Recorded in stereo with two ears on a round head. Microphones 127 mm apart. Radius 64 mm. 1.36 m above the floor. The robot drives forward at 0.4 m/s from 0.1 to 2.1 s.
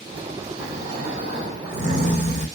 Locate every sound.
0.6 s snoring: 65° right (ahead or behind), 2 m; by 2.5 s 55° right (ahead or behind), 2.5 m